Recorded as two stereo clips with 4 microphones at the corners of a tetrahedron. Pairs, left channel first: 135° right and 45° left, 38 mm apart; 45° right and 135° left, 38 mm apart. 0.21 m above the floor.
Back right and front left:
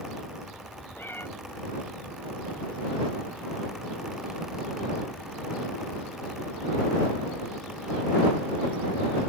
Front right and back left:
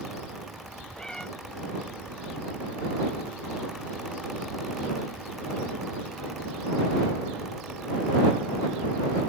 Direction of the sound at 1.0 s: 120° right.